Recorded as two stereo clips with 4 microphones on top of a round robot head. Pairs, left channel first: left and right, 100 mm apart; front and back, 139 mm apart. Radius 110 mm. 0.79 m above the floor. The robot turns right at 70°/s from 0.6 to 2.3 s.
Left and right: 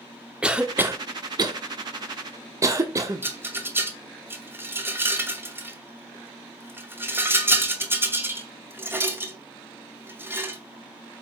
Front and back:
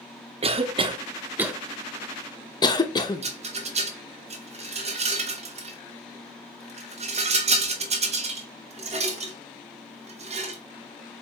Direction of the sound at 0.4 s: 165° right.